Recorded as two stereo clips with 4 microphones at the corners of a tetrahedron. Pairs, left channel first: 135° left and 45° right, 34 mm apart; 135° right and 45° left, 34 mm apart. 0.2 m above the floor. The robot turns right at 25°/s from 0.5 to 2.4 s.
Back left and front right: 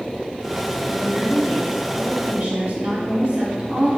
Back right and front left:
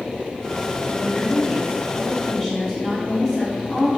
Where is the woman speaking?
100° right, 1.2 m; by 3.9 s 60° right, 1.2 m.